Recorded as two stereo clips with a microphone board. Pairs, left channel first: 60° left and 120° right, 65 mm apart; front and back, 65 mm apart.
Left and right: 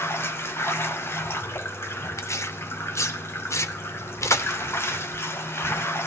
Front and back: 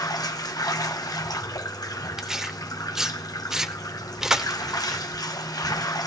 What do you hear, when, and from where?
0.0 s running water: 10° left, 1.3 m
2.2 s tearing paper: 100° left, 1.1 m